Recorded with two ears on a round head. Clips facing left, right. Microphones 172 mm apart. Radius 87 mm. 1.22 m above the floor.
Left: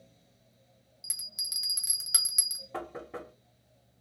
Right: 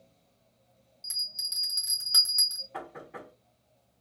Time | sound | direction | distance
1.0 | a bell | 20° left (ahead or behind) | 1.0 m
2.7 | knocking | 50° left (ahead or behind) | 1.2 m